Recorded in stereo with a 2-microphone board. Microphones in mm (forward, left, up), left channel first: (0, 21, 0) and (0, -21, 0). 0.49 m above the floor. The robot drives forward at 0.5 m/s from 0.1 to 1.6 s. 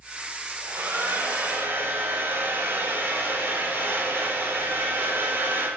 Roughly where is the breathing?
I don't hear breathing.